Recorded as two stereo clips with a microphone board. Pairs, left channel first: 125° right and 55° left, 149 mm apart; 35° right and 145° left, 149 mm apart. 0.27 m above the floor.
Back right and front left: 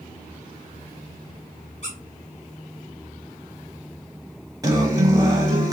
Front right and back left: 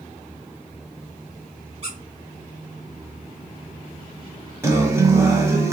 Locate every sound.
1.8 s a squeak: 165° right, 3 m
4.6 s a guitar: 90° left, 1.1 m